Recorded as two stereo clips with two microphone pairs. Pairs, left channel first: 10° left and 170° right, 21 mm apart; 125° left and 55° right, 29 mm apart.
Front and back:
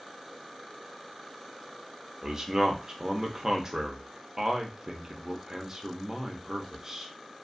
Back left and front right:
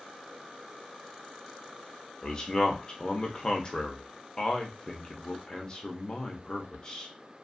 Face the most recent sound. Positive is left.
turn(degrees=160)